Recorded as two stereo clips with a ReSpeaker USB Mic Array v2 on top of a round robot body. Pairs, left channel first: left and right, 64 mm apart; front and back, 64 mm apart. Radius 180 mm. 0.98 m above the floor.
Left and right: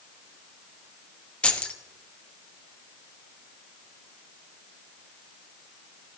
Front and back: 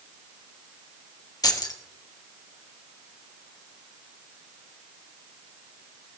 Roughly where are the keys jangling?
Ahead.